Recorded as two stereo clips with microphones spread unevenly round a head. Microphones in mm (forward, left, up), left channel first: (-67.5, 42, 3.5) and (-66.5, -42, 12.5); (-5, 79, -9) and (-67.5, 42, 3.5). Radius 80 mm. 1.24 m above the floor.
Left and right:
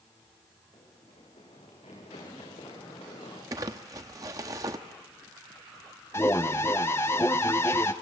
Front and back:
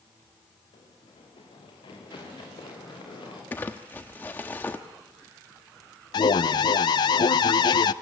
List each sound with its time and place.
0.7 s running footsteps: 35° left, 6.5 m; by 3.4 s 40° left, 9 m
3.5 s crumpling: 45° right, 0.8 m
6.1 s an alarm: 25° left, 0.6 m